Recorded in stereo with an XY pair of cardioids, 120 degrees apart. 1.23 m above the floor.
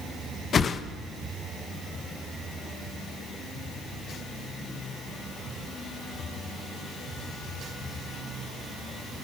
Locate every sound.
0.5 s a whoosh: 40° left, 1.4 m